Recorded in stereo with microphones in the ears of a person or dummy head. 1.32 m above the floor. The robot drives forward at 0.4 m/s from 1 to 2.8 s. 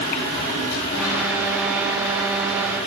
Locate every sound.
Only background noise.